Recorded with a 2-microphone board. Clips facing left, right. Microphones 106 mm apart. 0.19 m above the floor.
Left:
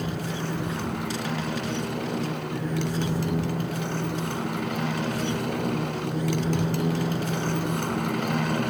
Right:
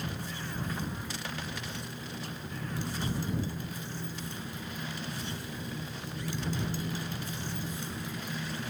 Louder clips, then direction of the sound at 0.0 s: Left 9 dB; 70° left (ahead or behind).